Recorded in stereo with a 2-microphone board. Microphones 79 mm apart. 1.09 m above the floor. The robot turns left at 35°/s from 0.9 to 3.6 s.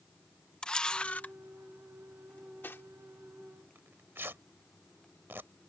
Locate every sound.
0.6 s a camera shutter: 10° left (ahead or behind); by 1.3 s 25° left (ahead or behind)
2.3 s cutlery clinking: 15° left (ahead or behind); by 2.9 s 30° left (ahead or behind)
3.8 s tearing paper: 30° right (ahead or behind)